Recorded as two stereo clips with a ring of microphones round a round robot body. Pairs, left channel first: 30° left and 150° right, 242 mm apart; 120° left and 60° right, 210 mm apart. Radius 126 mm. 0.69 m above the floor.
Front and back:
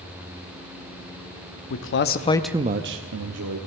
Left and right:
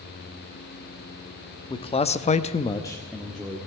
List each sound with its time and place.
1.7 s a man speaking: 55° left, 1.0 m; by 3.6 s 150° right, 1.4 m